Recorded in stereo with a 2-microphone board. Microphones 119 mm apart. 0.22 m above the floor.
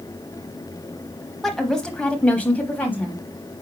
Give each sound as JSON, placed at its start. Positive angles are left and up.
{"t": 1.4, "sound": "a woman speaking", "side_deg": 0, "distance_m": 1.2}